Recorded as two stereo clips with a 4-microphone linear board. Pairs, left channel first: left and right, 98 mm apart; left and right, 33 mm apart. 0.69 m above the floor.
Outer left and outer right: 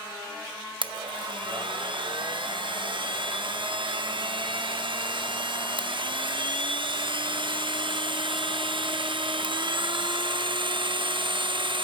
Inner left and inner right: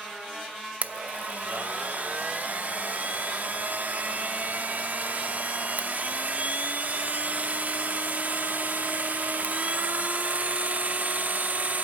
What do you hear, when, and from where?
0.8 s a blender: 55° right (ahead or behind), 0.7 m